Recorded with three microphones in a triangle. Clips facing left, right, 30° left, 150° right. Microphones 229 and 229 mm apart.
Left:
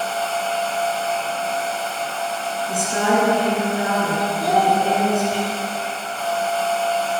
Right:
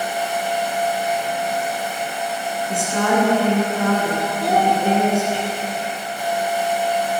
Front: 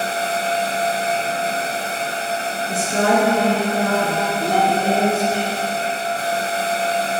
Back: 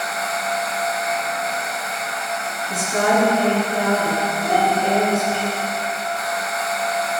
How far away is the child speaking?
About 1.0 m.